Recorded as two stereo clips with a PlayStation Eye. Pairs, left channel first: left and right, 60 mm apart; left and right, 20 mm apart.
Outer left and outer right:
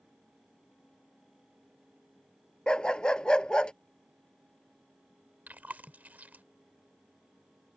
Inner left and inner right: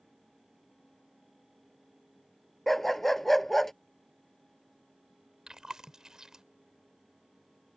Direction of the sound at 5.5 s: 25° right (ahead or behind).